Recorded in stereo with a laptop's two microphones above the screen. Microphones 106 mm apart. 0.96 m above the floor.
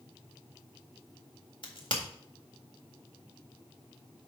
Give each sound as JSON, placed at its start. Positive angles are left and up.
{"t": 1.6, "sound": "a crack", "side_deg": 55, "distance_m": 1.8}